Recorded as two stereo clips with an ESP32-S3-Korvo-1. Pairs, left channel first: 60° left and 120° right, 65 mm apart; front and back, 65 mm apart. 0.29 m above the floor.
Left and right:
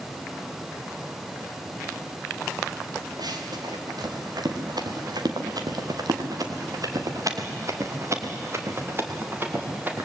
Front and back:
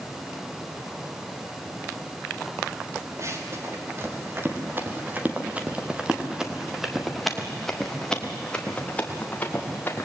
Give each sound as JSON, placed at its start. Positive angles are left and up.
{"t": 3.2, "sound": "running footsteps", "azimuth_deg": -135, "distance_m": 4.5}